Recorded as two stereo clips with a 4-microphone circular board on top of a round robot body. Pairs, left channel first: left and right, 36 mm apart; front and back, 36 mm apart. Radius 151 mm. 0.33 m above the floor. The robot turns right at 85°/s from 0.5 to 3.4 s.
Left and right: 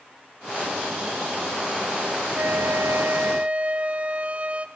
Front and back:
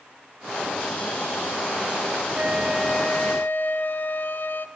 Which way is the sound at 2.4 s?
125° right.